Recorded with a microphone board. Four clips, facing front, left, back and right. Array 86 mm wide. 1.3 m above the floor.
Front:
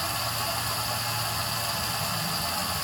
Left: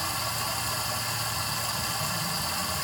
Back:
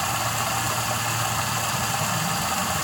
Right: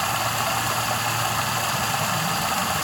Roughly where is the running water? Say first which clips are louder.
Right 8 dB, back 5 dB; behind right.